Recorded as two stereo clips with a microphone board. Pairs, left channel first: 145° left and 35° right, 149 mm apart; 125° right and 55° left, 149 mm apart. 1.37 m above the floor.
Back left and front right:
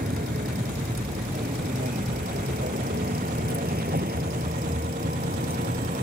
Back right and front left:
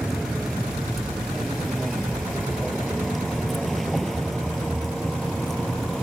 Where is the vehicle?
35° right.